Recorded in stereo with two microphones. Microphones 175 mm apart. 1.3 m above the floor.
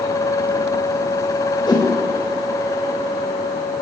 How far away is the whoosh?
About 0.9 m.